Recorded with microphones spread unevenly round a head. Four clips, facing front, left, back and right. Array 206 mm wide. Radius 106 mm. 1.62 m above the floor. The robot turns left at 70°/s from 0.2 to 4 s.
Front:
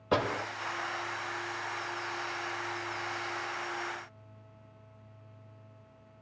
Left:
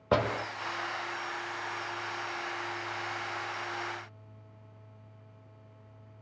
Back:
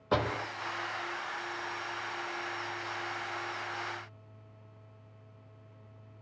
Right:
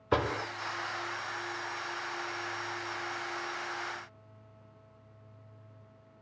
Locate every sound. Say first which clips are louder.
0.1 s a door slam: left 2 dB, front 1 dB; 90° left, 2 m; by 0.5 s 75° left, 2 m